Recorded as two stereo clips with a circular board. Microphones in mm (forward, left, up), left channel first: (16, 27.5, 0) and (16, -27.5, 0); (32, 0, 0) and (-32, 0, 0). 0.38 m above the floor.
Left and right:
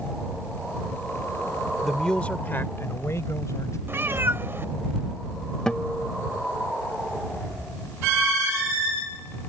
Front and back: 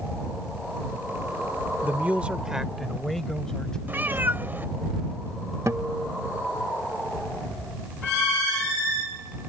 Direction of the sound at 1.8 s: 175° right.